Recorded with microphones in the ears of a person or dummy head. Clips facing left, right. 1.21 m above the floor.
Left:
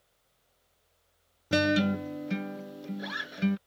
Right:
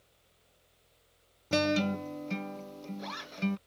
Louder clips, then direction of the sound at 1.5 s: Left 3 dB; 10° left (ahead or behind).